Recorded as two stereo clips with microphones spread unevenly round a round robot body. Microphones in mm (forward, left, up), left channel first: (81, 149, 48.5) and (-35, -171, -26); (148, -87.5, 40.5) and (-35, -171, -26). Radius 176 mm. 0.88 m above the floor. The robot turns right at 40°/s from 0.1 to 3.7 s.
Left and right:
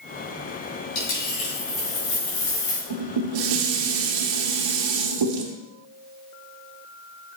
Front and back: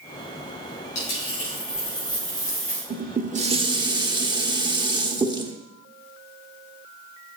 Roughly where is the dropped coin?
Ahead left.